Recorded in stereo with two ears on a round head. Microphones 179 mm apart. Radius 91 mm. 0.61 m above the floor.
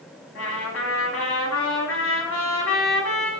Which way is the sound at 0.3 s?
80° left.